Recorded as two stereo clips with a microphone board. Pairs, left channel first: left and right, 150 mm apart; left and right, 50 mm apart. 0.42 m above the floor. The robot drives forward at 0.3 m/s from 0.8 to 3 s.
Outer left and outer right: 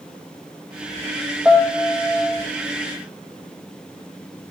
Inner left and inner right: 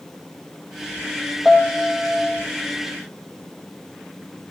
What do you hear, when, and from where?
1.4 s a piano: 10° right (ahead or behind), 1.6 m; by 2.5 s 5° right (ahead or behind), 1.9 m